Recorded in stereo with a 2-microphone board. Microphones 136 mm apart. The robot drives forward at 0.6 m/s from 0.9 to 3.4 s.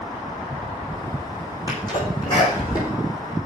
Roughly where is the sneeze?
Left.